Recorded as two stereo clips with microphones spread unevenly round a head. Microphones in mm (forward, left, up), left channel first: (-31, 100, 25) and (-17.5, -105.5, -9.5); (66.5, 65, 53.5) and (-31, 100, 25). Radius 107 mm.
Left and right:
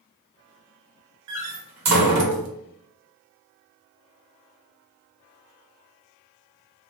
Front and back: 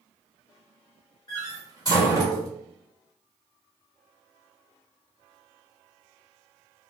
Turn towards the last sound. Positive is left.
turn(degrees=-90)